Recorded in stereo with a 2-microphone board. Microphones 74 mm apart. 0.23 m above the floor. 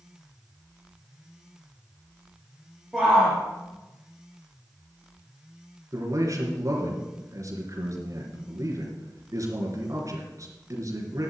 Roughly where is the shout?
Centre.